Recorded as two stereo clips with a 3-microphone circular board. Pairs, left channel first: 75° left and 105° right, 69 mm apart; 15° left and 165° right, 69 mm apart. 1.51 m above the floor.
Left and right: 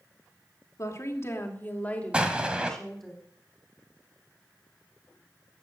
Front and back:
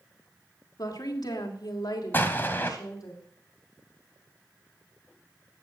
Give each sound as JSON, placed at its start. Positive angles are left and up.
{"t": 0.8, "sound": "a woman speaking", "azimuth_deg": 35, "distance_m": 3.0}
{"t": 2.1, "sound": "an explosion", "azimuth_deg": -35, "distance_m": 1.9}